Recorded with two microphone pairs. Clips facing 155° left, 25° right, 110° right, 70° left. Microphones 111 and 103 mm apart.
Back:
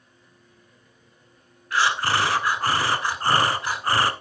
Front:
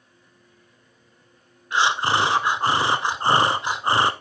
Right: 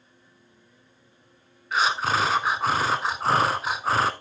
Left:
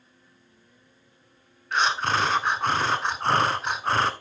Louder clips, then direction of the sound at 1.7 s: Front 2 dB, even; 20° right.